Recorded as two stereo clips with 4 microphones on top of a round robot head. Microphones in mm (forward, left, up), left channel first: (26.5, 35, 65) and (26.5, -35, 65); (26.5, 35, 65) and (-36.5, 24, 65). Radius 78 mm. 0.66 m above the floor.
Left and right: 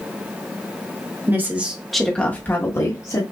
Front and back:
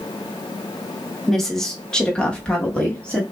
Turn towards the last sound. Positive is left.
turn(degrees=80)